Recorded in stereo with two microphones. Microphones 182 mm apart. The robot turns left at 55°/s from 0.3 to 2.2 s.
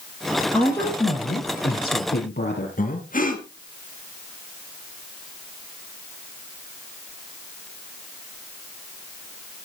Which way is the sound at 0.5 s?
175° left.